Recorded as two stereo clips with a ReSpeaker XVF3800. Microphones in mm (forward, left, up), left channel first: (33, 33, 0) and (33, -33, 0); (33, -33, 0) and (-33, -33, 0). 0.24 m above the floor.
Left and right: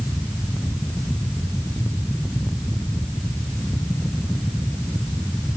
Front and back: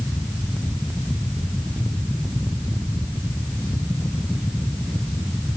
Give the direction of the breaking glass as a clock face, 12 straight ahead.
No breaking glass in this recording.